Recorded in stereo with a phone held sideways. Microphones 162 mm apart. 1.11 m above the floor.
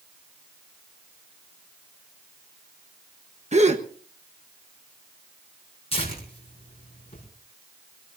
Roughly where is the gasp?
Right.